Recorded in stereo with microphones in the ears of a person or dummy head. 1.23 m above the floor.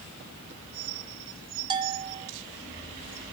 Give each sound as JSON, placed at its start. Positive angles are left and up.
{"t": 1.7, "sound": "a bell", "side_deg": -20, "distance_m": 0.6}